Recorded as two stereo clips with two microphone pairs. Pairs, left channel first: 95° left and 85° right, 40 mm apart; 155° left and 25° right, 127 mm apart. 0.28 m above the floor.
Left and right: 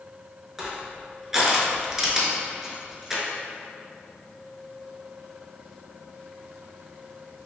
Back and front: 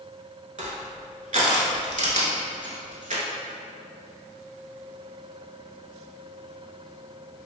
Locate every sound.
0.6 s crushing: 5° right, 0.5 m